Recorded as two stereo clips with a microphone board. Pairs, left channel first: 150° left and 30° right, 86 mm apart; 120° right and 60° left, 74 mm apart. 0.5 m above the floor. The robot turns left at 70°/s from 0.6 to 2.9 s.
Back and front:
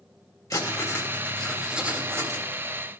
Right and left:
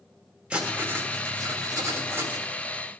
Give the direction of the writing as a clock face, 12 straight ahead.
8 o'clock.